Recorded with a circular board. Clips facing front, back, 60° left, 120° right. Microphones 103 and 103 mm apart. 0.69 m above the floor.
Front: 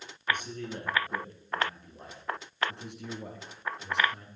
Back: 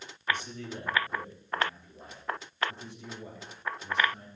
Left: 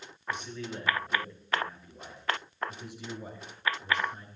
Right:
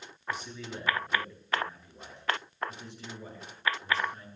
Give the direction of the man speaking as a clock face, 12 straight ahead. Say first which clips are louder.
Front 1 dB, left 1 dB; 1 o'clock.